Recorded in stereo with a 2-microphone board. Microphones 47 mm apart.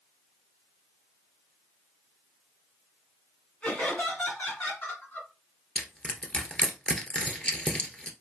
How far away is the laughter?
About 1.6 m.